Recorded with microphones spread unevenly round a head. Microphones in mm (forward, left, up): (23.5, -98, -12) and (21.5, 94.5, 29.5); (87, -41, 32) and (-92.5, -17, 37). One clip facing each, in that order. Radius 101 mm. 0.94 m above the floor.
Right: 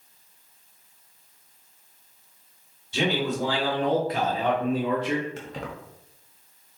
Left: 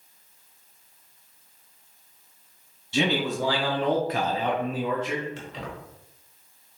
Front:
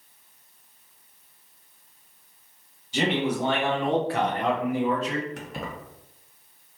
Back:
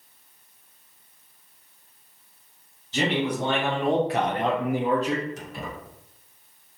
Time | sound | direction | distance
2.9 | a man speaking | 70° left | 1.3 m
5.4 | keys jangling | 40° right | 0.8 m